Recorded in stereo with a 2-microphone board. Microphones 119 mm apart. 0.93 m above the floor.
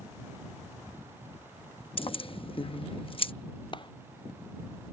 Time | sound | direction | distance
2.0 | keys jangling | 45° left (ahead or behind) | ?
3.7 | a clap | 40° left (ahead or behind) | ?